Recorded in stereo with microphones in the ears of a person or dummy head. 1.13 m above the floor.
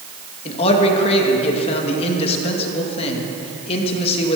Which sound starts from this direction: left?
A man speaking, at 0.5 s.